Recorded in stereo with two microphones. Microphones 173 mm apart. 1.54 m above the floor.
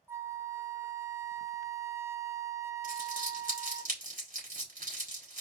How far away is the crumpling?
About 4 m.